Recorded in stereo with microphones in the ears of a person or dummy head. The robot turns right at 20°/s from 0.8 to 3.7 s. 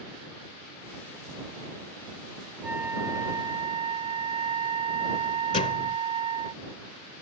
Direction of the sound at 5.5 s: 35° left (ahead or behind).